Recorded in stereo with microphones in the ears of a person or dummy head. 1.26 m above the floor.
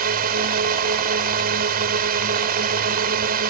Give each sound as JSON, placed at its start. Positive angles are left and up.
{"t": 0.0, "sound": "a drone", "side_deg": -50}